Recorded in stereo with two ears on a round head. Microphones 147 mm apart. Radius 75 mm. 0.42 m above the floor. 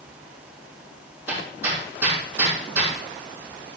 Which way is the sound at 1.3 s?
15° right (ahead or behind).